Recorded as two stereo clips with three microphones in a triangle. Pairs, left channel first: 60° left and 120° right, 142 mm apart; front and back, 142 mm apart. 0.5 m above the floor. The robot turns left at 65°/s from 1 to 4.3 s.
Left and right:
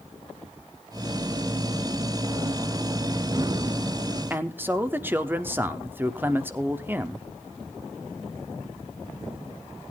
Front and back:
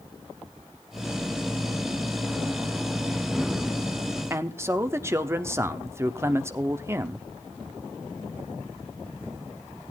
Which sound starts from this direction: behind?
A man speaking, at 4.3 s.